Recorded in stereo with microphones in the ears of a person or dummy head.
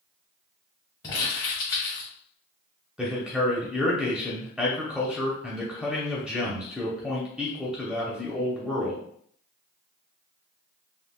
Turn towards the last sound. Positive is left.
turn(degrees=-10)  # may be behind; listen again after turning